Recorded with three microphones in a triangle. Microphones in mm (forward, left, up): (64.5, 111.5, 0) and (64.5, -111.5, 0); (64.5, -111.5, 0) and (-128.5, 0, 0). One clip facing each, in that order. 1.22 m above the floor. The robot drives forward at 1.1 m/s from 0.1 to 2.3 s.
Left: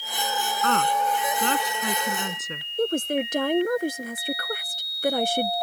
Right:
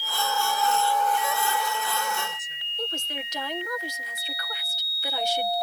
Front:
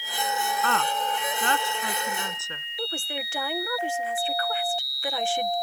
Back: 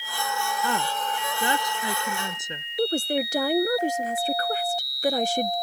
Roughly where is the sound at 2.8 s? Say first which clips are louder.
Left 12 dB, back 10 dB; left.